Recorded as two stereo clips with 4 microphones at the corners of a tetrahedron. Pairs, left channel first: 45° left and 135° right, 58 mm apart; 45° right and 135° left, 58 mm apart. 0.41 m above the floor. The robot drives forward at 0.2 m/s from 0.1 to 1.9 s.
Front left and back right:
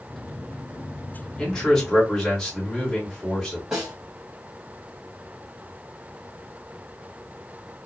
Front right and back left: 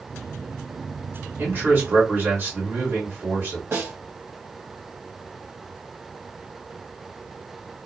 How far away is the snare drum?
About 1.8 m.